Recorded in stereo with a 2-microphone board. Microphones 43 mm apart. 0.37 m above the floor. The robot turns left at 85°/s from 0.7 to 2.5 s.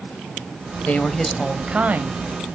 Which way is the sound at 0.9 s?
35° left (ahead or behind).